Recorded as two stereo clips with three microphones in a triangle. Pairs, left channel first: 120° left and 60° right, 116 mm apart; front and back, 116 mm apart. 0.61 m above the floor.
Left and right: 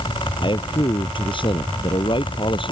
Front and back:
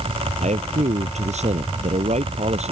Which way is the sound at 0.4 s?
165° left.